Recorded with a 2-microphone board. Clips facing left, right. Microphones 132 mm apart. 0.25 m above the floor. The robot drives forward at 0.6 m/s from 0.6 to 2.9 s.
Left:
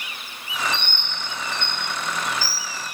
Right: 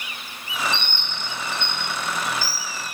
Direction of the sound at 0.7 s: 65° right (ahead or behind).